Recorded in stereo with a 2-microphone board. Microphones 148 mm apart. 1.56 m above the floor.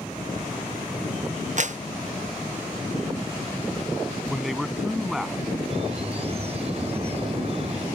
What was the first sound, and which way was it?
A clap, 55° right (ahead or behind).